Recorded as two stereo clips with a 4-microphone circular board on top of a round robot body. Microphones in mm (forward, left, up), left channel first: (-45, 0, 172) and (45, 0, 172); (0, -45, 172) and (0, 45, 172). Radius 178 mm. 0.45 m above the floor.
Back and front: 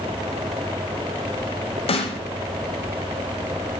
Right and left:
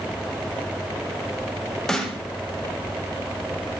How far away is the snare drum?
About 0.9 m.